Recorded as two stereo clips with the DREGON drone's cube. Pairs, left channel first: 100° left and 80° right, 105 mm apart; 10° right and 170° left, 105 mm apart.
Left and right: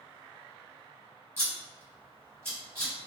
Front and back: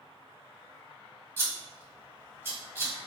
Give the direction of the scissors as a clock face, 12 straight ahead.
4 o'clock.